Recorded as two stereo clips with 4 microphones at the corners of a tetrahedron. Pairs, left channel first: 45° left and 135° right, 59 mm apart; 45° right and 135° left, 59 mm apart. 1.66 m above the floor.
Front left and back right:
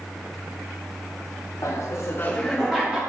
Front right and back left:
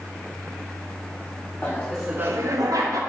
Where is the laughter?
15° left, 0.9 m; by 3.0 s 150° left, 1.3 m.